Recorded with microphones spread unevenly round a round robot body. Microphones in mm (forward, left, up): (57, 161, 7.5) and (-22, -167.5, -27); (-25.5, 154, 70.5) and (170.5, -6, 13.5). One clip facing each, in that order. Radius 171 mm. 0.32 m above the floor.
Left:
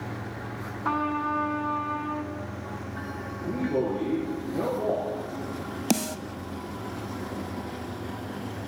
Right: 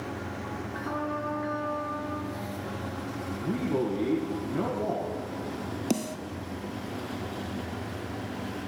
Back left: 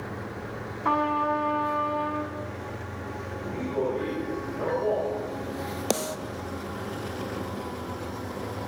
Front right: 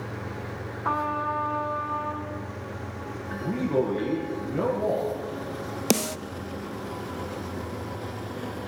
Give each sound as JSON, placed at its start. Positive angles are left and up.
{"t": 0.8, "sound": "a trumpet", "azimuth_deg": 90, "distance_m": 3.5}
{"t": 3.3, "sound": "a man speaking", "azimuth_deg": -35, "distance_m": 9.0}
{"t": 5.9, "sound": "a snare drum", "azimuth_deg": 5, "distance_m": 0.9}